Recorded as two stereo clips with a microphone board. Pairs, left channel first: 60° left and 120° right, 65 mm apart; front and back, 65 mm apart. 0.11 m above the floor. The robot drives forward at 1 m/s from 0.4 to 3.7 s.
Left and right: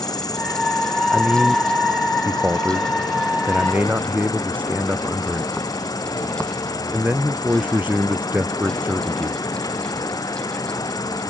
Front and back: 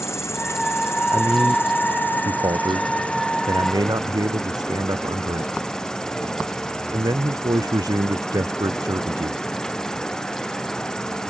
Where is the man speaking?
Straight behind.